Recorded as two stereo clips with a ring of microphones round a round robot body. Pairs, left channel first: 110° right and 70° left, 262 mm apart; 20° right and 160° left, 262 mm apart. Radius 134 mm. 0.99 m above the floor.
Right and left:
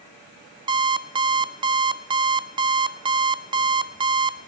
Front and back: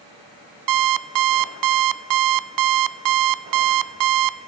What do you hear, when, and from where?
0.7 s an alarm clock: 140° left, 0.7 m